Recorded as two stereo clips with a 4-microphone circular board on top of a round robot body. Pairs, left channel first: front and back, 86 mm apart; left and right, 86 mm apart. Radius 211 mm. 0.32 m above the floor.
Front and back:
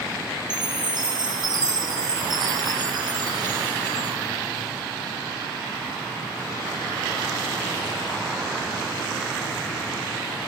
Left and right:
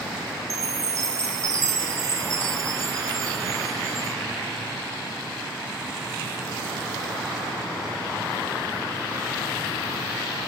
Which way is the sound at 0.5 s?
140° right.